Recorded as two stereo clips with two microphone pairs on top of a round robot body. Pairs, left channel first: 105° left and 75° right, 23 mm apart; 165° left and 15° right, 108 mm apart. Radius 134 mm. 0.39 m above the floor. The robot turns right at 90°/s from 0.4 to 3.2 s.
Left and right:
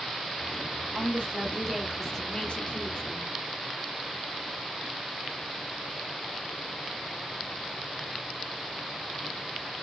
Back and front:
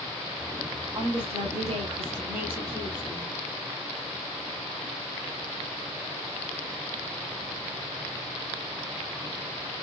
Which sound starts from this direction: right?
A woman speaking, at 0.9 s.